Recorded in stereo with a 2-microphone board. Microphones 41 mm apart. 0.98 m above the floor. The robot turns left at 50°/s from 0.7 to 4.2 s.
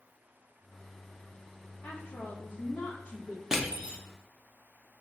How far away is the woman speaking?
About 1.4 m.